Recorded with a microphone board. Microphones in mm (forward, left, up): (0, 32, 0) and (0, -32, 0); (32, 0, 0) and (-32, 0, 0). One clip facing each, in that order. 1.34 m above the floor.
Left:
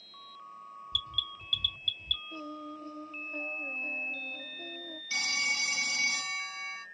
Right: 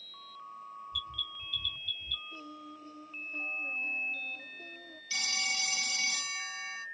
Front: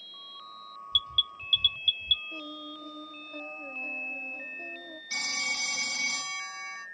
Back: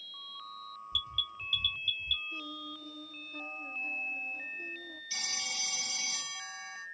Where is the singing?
45° left, 2.0 m.